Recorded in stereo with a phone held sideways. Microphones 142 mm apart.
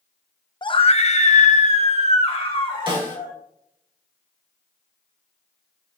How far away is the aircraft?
I don't hear an aircraft.